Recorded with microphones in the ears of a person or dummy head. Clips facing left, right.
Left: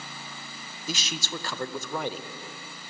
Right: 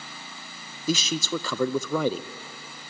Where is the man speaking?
85° right, 0.7 m.